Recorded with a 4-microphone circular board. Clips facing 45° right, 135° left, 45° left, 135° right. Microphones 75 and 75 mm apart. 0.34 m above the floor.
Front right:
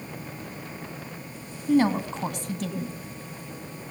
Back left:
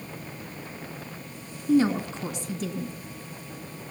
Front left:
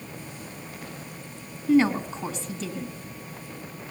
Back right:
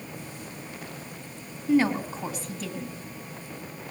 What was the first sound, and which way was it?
A woman speaking, 50° right.